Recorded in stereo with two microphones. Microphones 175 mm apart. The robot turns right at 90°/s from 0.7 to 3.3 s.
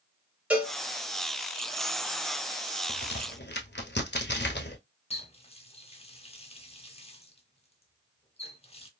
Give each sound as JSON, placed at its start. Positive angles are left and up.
{"t": 0.5, "sound": "a cowbell", "side_deg": -5, "distance_m": 1.1}
{"t": 2.9, "sound": "a crack", "side_deg": 55, "distance_m": 1.0}
{"t": 5.1, "sound": "a running tap", "side_deg": 35, "distance_m": 0.8}